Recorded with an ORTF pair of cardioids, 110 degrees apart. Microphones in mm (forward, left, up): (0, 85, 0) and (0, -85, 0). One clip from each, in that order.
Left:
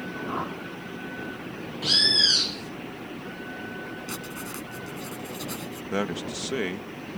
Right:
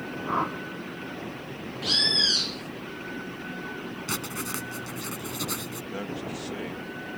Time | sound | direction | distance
0.3 | a whoosh | 35° right | ?
1.8 | a bird | 10° left | ?
4.1 | writing | 40° right | ?
5.9 | a man speaking | 55° left | ?